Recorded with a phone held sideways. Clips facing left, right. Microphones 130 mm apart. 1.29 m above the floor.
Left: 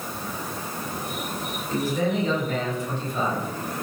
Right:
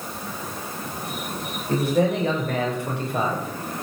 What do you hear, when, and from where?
1.7 s a man speaking: 65° right (ahead or behind), 7 m; by 3.7 s 80° right, 5.5 m